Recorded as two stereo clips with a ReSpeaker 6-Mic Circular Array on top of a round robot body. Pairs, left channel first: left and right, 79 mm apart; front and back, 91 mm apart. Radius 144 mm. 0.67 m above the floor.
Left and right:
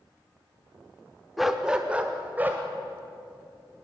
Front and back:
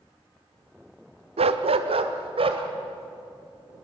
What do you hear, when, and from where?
1.4 s a dog barking: straight behind, 0.8 m; by 2.6 s 160° right, 1.8 m